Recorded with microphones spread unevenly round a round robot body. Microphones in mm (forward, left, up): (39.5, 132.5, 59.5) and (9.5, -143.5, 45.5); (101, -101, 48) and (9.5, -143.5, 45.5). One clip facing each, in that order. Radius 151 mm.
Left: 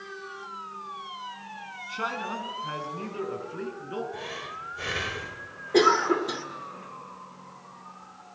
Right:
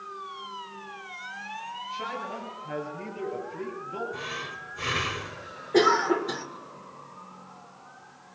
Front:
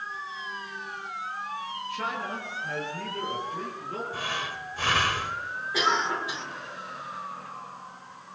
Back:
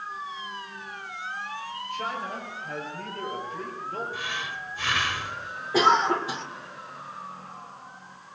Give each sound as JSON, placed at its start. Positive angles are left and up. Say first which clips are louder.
{"t": 1.9, "sound": "a man speaking", "louder": "left 2 dB, back 1 dB", "azimuth_deg": 75, "distance_m": 6.0}
{"t": 4.1, "sound": "breathing", "louder": "even, front 1 dB", "azimuth_deg": -20, "distance_m": 1.9}
{"t": 5.7, "sound": "a cough", "louder": "even, back 6 dB", "azimuth_deg": 165, "distance_m": 1.8}